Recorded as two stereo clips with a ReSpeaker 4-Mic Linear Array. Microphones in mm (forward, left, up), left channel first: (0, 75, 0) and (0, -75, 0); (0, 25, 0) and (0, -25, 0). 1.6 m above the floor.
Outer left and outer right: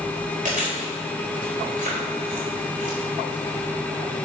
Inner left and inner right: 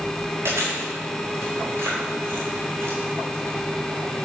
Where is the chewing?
60° right (ahead or behind), 4 m.